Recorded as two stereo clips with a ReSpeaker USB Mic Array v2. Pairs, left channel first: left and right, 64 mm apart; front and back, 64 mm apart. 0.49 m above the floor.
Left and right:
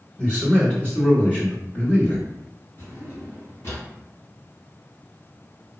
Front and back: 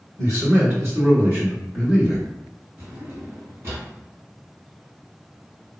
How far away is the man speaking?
About 1.8 m.